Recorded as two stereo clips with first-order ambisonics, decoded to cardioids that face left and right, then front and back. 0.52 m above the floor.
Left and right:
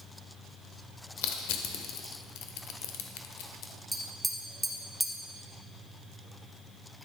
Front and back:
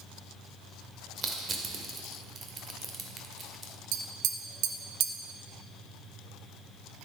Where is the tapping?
175° right, 0.6 m.